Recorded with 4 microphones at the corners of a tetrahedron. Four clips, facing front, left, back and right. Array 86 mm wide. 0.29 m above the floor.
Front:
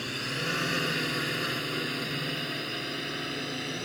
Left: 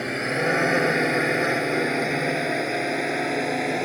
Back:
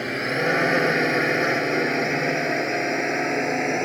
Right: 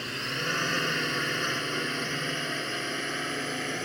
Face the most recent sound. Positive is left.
turn(degrees=150)